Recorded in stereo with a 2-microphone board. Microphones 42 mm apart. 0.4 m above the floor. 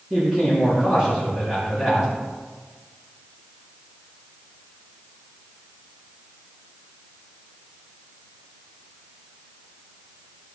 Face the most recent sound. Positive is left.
turn(degrees=-20)  # may be behind; listen again after turning